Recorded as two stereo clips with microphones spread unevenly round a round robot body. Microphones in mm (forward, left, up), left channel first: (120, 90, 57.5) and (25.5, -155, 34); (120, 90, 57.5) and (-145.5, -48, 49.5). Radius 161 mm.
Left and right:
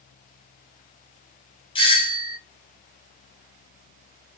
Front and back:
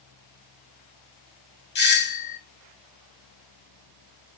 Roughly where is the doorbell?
Ahead.